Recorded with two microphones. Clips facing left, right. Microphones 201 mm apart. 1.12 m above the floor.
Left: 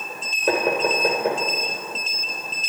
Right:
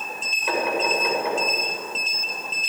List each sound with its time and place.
0.5 s knocking: 50° left (ahead or behind), 3.5 m